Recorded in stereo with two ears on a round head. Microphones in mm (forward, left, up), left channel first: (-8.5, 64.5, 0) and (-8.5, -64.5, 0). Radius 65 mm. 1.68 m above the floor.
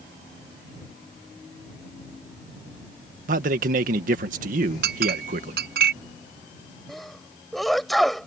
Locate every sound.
3.3 s a man speaking: 65° right (ahead or behind)
4.8 s a clink: 75° right (ahead or behind)
6.9 s a sneeze: centre (ahead or behind)